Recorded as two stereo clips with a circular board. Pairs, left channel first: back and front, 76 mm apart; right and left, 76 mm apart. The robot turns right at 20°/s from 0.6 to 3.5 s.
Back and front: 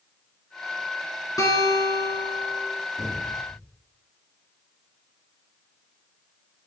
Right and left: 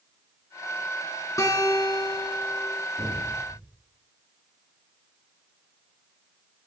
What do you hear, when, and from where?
1.4 s a guitar: 140° right, 3 m; by 2.7 s 110° right, 3 m
3.0 s an explosion: 135° left, 4 m; by 3.8 s 150° left, 4 m